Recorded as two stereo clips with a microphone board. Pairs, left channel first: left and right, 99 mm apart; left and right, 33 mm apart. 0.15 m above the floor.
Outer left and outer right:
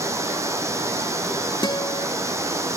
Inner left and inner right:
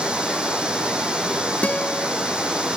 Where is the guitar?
50° left (ahead or behind), 0.7 m.